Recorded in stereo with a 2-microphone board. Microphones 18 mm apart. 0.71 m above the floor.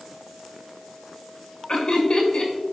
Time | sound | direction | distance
1.7 | laughter | 60° left (ahead or behind) | 1.9 m